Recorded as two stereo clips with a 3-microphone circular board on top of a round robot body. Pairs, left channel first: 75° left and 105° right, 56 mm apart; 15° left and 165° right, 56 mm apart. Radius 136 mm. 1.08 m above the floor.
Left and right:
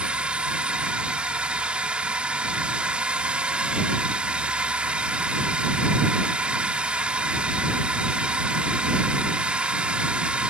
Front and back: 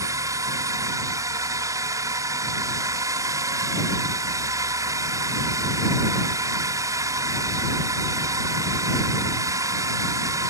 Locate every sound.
0.0 s a drone: 175° right